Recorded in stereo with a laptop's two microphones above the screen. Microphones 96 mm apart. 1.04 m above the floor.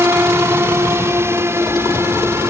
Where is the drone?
25° right (ahead or behind).